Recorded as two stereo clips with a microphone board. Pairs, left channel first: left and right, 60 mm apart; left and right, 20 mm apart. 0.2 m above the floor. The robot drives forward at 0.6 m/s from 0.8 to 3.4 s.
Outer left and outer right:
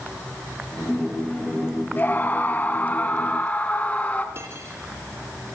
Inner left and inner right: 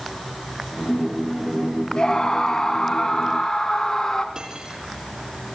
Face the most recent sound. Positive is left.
turn(degrees=-45)  # may be behind; listen again after turning